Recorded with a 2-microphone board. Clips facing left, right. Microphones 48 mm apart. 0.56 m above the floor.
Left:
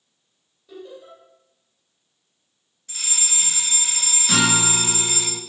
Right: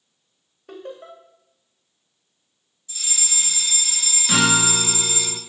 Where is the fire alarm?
60° left (ahead or behind), 4 m.